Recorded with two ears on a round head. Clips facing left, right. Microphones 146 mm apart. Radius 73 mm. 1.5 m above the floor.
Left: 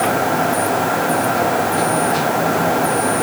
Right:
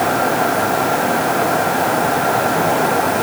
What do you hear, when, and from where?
Only background noise.